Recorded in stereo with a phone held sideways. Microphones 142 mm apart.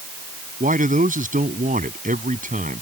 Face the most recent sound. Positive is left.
turn(degrees=-70)  # may be behind; listen again after turning